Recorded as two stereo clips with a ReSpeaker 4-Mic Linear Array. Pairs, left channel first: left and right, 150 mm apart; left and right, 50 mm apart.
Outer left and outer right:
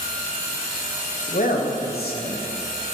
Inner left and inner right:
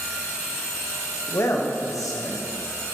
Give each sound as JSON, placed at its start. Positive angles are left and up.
{"t": 1.3, "sound": "a man speaking", "side_deg": 50, "distance_m": 1.2}